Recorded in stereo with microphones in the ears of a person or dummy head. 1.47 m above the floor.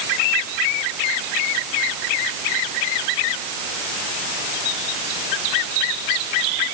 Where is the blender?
No blender in this recording.